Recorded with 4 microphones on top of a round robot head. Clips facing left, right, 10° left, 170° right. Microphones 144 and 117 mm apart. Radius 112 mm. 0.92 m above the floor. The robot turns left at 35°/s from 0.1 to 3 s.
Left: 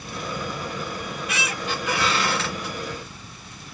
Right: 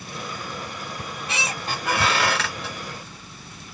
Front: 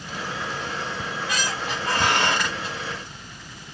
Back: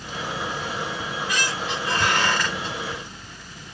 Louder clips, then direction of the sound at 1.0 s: Left 1 dB, back 1 dB; 25° right.